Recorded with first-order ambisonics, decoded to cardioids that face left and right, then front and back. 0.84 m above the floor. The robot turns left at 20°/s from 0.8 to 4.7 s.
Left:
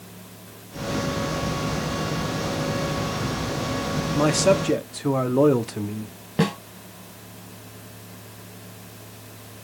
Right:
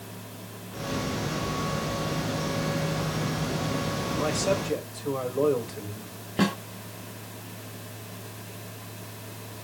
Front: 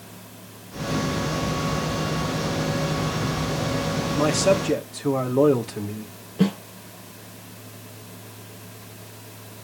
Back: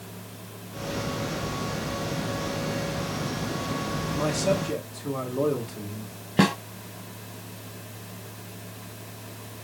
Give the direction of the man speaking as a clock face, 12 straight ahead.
10 o'clock.